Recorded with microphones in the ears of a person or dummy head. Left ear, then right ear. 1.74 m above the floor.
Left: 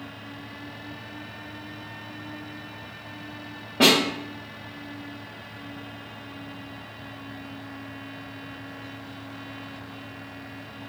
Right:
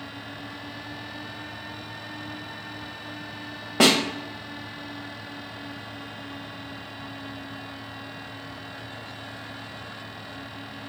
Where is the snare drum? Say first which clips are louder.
Left 1 dB; 55° right (ahead or behind), 0.7 m.